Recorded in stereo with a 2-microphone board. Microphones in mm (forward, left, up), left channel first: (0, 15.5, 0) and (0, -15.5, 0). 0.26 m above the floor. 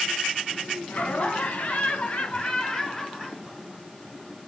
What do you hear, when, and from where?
0.9 s laughter: 55° left (ahead or behind), 2 m; by 4.4 s 10° right (ahead or behind), 2.5 m